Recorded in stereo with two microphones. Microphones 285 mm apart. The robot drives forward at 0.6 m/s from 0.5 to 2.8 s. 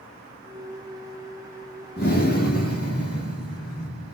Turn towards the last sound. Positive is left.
turn(degrees=30)  # may be behind; listen again after turning